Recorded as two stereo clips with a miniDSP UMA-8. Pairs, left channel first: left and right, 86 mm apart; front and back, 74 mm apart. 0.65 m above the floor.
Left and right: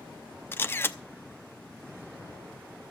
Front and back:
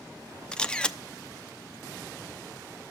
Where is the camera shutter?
60° left, 0.7 m.